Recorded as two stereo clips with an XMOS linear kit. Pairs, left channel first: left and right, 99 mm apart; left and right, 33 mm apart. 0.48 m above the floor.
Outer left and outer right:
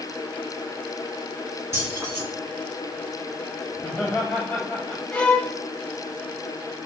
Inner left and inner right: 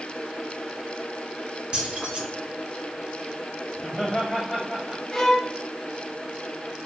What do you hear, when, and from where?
1.7 s keys jangling: 30° right (ahead or behind), 3.5 m
3.8 s laughter: 15° left (ahead or behind), 2.5 m
5.1 s a violin: 10° left (ahead or behind), 0.9 m